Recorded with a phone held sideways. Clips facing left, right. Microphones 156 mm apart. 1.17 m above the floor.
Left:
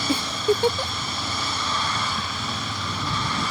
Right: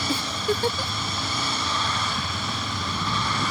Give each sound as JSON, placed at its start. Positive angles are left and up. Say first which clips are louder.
{"t": 0.1, "sound": "a giggle", "louder": "left 5 dB", "side_deg": 20}